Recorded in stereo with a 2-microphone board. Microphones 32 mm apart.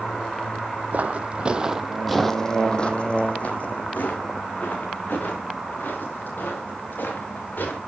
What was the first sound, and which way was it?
Footsteps, 50° right (ahead or behind).